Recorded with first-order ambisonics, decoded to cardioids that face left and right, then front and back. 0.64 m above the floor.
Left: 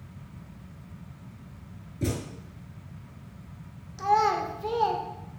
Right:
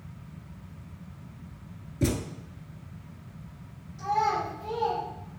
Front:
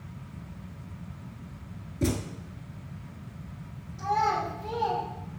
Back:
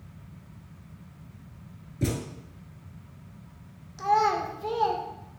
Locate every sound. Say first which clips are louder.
2.0 s a thud: right 3 dB, front 2 dB; 90° right, 0.6 m
4.0 s a child speaking: left 3 dB, back 3 dB; 135° left, 1.0 m